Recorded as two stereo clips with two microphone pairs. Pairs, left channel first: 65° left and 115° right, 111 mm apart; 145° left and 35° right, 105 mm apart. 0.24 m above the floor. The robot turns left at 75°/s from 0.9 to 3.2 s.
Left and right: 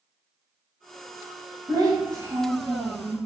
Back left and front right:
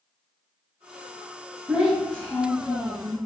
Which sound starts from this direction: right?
A child speaking, at 1.7 s.